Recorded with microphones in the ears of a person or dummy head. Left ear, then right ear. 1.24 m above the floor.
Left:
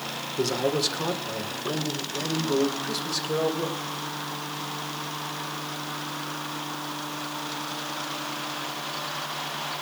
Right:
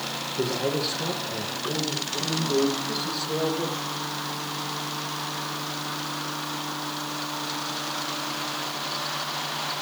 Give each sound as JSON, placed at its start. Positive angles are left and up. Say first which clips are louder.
{"t": 0.4, "sound": "a man speaking", "louder": "left 2 dB", "side_deg": 60, "distance_m": 5.0}